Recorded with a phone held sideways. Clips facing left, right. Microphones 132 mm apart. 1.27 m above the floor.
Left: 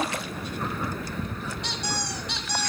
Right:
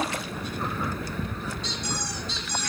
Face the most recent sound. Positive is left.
turn(degrees=70)  # may be behind; listen again after turning